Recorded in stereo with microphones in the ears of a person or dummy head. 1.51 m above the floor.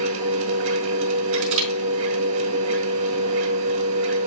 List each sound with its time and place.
0.0 s a machine running: 70° right (ahead or behind), 1.5 m
1.3 s crushing: 70° right (ahead or behind), 4.5 m